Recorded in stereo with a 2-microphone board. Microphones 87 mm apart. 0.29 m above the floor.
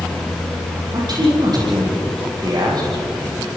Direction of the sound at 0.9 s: 50° right (ahead or behind).